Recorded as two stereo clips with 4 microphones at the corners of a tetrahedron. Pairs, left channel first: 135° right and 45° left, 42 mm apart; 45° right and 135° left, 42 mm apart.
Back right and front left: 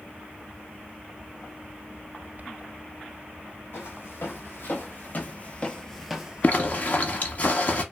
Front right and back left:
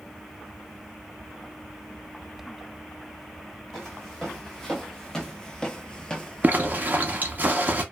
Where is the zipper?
Straight behind, 0.7 m.